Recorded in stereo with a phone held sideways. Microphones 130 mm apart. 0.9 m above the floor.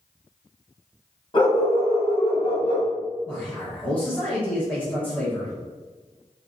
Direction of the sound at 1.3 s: 40° left (ahead or behind).